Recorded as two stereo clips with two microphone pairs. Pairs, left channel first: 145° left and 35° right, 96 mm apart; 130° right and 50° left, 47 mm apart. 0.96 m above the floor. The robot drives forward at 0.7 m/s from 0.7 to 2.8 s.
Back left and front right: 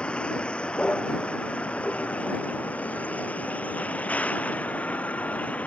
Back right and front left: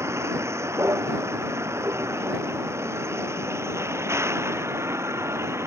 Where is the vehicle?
65° left; by 5.7 s 70° left.